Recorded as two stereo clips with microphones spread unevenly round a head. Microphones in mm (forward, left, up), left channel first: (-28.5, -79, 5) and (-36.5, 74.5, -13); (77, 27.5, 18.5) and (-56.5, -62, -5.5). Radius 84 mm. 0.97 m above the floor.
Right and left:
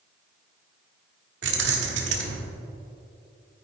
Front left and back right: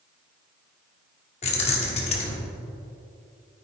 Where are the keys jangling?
90° left, 1.4 m.